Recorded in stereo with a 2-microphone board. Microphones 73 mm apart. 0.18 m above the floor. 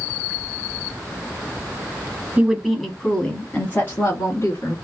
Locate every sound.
2.4 s a woman speaking: 15° right (ahead or behind), 1.0 m; by 4.8 s 45° left (ahead or behind), 1.7 m